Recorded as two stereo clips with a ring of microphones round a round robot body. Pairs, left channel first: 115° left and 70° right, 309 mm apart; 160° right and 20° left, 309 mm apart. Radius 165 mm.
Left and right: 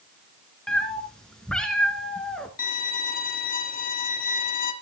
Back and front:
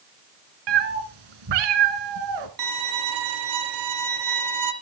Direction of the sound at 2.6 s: 50° left.